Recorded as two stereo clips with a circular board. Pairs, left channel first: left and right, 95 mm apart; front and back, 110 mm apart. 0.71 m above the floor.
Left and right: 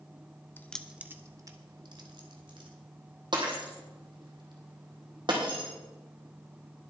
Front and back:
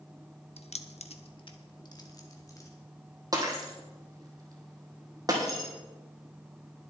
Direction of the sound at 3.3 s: 120° right.